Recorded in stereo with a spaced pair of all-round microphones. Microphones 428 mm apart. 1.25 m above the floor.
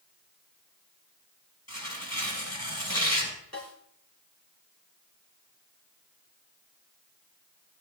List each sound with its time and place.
1.7 s tearing paper: 35° left (ahead or behind), 5.5 m
3.5 s a snare drum: 35° left (ahead or behind), 5.5 m